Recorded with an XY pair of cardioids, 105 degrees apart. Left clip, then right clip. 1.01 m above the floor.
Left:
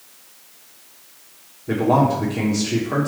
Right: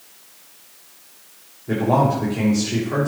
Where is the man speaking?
20° left, 3 m.